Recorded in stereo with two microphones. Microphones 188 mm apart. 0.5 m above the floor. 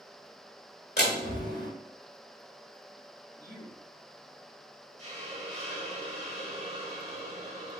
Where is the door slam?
65° left (ahead or behind), 2 m.